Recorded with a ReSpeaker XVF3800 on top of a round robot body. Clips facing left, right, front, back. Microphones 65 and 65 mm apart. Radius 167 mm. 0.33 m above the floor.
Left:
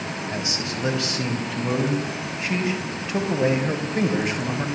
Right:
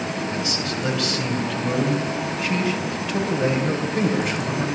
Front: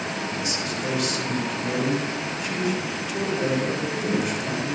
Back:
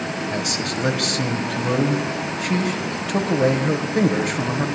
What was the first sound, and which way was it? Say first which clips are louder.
A man speaking: right 3 dB, back 3 dB; 155° left.